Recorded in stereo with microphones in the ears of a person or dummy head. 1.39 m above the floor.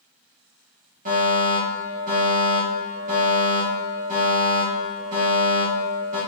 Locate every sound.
1.1 s a fire alarm: 50° right (ahead or behind), 2.5 m